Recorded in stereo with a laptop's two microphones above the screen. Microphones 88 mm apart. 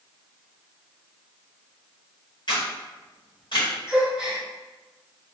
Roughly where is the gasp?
Centre.